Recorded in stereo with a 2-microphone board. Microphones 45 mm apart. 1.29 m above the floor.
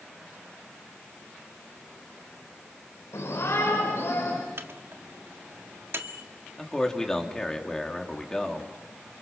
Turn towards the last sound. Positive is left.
turn(degrees=15)  # may be behind; listen again after turning